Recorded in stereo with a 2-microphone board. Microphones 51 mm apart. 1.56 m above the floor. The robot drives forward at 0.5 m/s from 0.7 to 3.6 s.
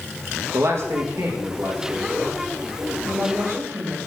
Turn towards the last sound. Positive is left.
turn(degrees=-45)  # may be behind; listen again after turning